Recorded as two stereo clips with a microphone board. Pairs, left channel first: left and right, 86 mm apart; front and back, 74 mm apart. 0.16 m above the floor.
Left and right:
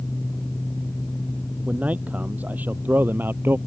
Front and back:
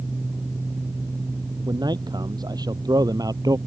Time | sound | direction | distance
1.7 | a man speaking | 165° right | ?